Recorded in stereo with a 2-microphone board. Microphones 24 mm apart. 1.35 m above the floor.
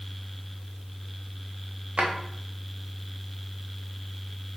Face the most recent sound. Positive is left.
turn(degrees=-50)  # may be behind; listen again after turning